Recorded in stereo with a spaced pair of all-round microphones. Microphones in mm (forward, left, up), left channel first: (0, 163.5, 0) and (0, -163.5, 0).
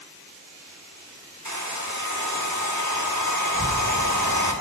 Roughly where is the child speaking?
Right.